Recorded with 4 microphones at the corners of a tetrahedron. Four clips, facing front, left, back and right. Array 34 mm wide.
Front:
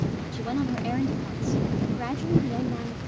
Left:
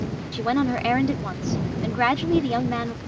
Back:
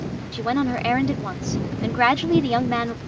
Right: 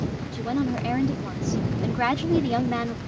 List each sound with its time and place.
0.3 s a woman speaking: 135° left; by 3.0 s straight behind